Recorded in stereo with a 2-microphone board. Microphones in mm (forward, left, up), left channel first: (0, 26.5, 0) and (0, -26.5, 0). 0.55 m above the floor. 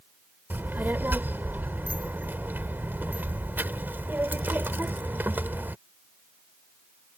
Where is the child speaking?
40° right (ahead or behind).